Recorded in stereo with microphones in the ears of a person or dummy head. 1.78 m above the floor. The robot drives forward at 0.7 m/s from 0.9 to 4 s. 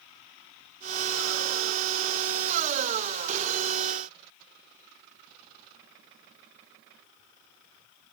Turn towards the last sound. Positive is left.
No sound to turn to.